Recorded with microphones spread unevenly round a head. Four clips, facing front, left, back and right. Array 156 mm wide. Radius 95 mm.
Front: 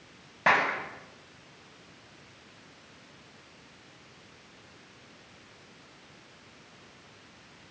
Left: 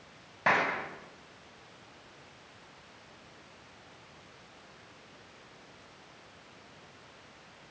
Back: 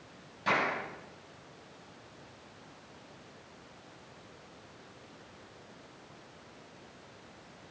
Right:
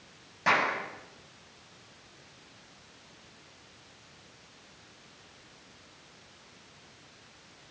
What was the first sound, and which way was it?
A clap, 5° left.